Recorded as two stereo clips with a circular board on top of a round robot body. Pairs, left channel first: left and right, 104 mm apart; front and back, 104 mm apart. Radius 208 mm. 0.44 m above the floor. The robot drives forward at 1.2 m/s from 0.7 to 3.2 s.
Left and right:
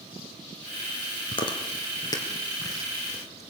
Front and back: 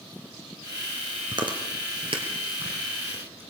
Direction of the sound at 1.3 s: 130° left.